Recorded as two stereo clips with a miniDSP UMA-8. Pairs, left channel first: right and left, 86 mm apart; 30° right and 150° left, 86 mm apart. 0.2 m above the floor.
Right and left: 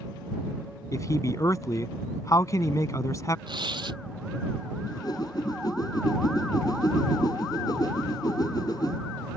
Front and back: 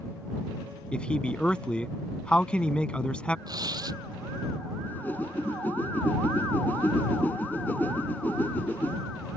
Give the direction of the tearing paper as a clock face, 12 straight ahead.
8 o'clock.